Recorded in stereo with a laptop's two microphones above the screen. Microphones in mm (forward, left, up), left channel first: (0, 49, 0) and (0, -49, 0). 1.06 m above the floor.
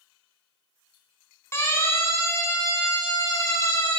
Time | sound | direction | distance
1.5 | a siren | 25° left (ahead or behind) | 6.5 m